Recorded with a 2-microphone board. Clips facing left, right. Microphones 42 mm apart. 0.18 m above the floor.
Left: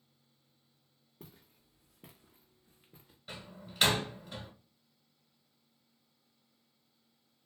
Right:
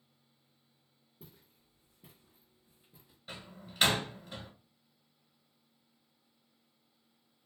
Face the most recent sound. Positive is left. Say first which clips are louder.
# even
turn(degrees=0)  # may be behind; listen again after turning